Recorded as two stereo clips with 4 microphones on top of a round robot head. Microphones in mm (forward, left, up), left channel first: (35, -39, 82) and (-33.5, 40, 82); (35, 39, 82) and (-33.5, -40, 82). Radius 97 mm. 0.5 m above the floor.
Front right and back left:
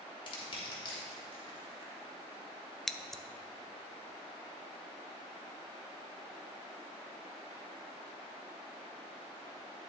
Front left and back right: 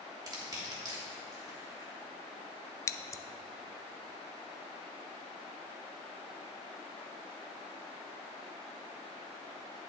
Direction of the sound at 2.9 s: 35° left.